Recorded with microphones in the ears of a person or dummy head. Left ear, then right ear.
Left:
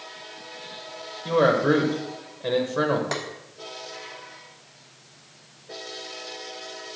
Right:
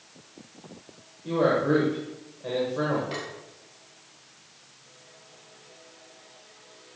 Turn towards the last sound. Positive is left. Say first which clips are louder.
# left 5 dB
turn(degrees=55)  # may be behind; listen again after turning